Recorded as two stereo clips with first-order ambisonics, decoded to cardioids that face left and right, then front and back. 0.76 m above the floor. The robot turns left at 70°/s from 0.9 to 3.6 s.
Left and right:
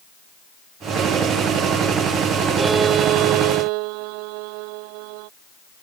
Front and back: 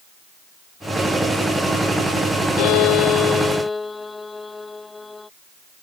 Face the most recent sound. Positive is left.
turn(degrees=-80)